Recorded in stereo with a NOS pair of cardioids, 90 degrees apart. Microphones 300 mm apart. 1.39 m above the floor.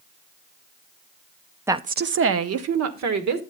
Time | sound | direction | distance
1.7 | a woman speaking | 10° right | 0.5 m